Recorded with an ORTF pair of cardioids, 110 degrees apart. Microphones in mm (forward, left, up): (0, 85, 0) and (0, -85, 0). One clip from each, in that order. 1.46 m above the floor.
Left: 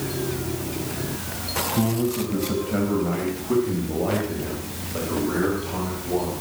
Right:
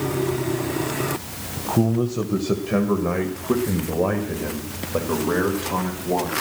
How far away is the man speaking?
About 1.0 m.